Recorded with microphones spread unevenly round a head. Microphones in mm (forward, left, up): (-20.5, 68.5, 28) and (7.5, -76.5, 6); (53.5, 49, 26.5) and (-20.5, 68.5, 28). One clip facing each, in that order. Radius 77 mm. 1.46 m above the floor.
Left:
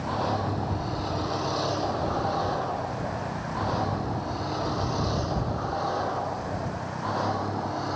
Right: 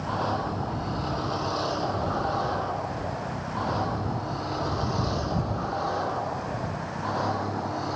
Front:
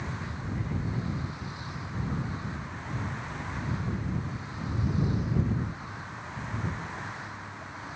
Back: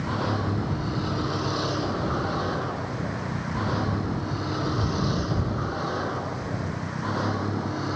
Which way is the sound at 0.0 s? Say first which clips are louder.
Left 1 dB, back 11 dB; 175° right.